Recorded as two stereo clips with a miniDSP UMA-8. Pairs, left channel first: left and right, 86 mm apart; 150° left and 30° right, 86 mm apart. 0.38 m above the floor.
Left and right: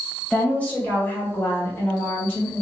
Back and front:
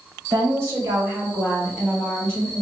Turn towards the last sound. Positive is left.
turn(degrees=120)